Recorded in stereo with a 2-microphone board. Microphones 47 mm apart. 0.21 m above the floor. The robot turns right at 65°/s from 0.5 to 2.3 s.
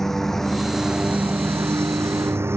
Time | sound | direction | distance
0.0 | a lawn mower | 170° left | ?